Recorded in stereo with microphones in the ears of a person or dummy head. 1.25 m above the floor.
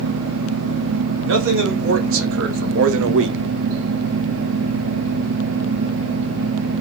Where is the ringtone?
No ringtone in this recording.